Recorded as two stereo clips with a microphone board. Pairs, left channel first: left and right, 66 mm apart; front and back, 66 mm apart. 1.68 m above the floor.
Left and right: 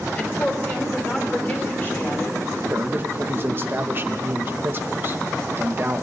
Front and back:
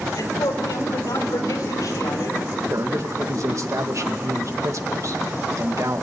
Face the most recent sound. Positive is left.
turn(degrees=-145)